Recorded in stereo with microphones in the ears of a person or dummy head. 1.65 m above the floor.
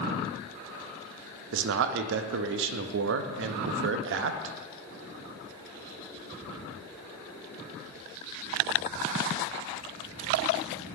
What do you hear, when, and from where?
1.5 s a man speaking: 60° right (ahead or behind), 0.5 m